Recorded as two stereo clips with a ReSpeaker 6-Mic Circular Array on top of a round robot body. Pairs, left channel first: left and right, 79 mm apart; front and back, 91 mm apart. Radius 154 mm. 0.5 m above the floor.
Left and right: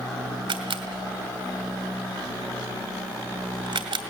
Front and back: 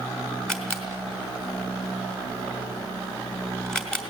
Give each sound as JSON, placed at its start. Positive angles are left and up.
{"t": 0.5, "sound": "a camera shutter", "azimuth_deg": -85, "distance_m": 3.0}